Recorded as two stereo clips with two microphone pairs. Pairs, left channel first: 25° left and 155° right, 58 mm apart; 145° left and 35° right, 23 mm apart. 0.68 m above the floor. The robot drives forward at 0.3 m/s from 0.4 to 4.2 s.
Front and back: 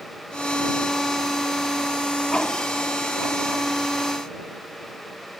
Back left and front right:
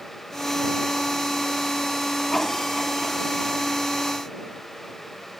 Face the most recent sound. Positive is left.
No sound to turn to.